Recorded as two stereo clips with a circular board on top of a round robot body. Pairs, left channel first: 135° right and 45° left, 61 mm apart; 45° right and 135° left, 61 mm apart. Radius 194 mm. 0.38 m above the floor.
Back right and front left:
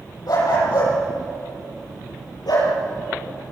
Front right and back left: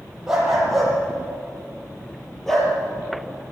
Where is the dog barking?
145° right, 7.5 m; by 2.7 s 130° right, 5 m.